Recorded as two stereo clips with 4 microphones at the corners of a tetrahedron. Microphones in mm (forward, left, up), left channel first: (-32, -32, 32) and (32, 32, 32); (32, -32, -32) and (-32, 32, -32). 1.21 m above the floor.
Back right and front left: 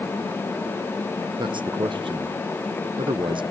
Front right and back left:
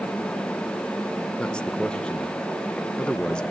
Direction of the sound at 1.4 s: 35° left.